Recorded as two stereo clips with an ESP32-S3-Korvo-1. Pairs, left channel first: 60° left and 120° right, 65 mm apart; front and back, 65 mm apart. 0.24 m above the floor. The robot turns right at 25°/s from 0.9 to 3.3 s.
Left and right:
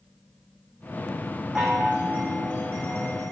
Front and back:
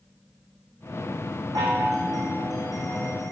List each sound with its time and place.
1.6 s a chime: 160° left, 4.5 m; by 3.3 s 155° right, 4.5 m